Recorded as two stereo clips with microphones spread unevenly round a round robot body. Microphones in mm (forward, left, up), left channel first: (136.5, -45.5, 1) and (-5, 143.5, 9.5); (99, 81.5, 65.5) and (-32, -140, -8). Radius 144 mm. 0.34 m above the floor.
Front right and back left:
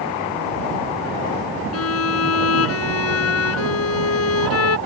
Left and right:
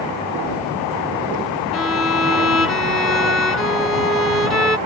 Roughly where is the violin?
Ahead right.